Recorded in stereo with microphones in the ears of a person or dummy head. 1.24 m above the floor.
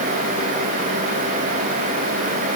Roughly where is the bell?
No bell in this recording.